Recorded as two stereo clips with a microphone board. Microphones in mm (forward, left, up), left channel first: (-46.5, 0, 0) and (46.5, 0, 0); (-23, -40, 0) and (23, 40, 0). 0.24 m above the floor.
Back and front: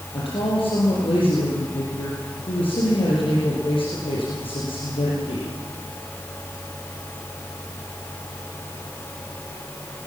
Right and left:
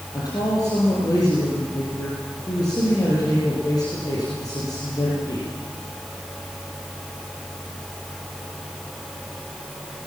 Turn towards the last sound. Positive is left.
turn(degrees=-165)